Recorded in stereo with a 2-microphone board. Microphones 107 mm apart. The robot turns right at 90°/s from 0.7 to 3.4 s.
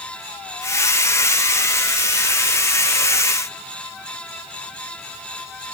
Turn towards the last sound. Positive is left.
No sound to turn to.